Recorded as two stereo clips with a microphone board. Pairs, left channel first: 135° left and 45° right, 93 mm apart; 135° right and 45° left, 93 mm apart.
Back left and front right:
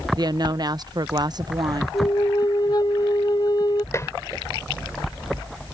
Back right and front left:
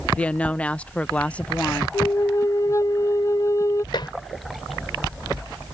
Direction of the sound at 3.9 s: 165° right.